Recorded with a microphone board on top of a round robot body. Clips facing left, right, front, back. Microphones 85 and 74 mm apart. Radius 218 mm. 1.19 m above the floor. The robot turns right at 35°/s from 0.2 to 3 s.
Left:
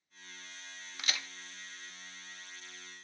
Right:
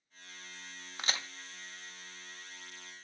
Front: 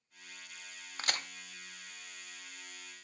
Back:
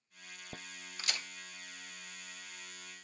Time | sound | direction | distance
1.0 | a crack | 40° right | 0.8 m